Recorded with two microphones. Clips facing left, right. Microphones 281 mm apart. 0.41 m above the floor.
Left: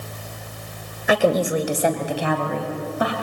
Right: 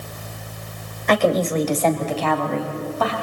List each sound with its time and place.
1.1 s a woman speaking: 10° left (ahead or behind), 2.0 m; by 3.1 s 15° left (ahead or behind), 4.5 m